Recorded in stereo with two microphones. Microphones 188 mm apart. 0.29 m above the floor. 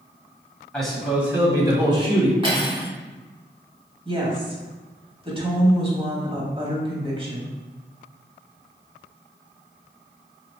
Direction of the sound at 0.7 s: 5° left (ahead or behind).